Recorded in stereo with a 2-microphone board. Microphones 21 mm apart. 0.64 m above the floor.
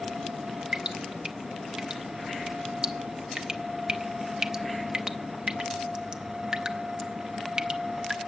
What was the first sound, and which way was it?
Dripping, 40° right (ahead or behind).